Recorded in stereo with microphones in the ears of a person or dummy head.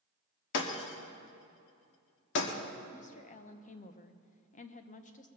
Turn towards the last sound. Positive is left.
turn(degrees=40)  # may be behind; listen again after turning